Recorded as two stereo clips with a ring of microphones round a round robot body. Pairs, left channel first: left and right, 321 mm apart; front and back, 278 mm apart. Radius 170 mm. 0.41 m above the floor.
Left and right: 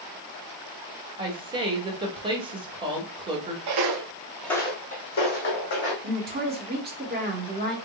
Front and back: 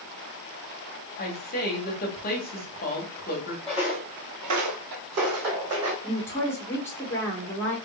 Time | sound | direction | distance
1.2 | a woman speaking | 25° right | 1.4 m
3.7 | footsteps | 85° right | 0.8 m
6.0 | a woman speaking | 75° right | 1.4 m